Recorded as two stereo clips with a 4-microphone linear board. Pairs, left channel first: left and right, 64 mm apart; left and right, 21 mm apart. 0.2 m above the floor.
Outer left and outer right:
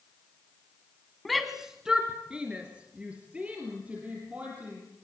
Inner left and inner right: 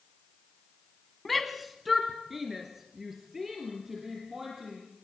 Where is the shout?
Centre (ahead or behind), 1.2 m; by 4.8 s 20° right (ahead or behind), 5.5 m.